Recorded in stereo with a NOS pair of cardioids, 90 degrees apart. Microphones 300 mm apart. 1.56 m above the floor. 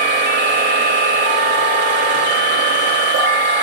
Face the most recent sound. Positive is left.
turn(degrees=-55)